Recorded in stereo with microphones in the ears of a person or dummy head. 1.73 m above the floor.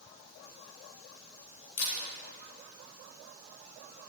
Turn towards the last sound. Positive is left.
turn(degrees=65)  # may be behind; listen again after turning